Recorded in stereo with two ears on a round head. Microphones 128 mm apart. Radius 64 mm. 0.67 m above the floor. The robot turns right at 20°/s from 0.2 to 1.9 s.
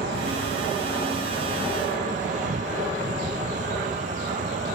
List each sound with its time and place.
0.0 s an insect: 90° right; by 4.8 s 55° right